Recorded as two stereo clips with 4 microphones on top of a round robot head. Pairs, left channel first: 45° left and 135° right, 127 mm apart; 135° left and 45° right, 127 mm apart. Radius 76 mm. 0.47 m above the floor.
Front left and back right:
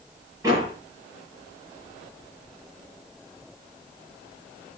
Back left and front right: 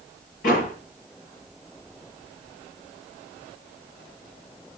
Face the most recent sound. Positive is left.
turn(degrees=155)